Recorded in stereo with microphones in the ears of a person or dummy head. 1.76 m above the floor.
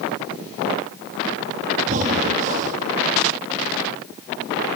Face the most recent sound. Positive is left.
turn(degrees=-45)  # may be behind; listen again after turning